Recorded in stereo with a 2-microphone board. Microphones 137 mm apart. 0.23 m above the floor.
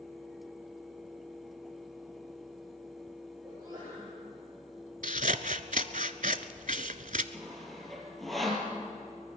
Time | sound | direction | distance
3.4 | a sneeze | 20° right (ahead or behind) | 8.5 m
5.0 | scissors | 70° right (ahead or behind) | 0.7 m
7.3 | sawing | centre (ahead or behind) | 3.5 m